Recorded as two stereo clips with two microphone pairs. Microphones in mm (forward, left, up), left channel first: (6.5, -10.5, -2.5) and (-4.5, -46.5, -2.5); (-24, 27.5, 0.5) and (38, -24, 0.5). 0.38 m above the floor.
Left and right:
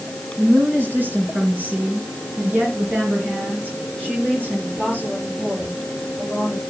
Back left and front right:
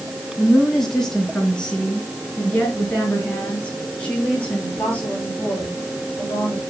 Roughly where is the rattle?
No rattle in this recording.